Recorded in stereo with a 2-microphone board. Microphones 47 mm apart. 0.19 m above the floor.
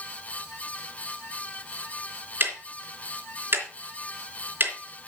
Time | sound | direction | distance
2.4 | ticking | 45° right (ahead or behind) | 3 m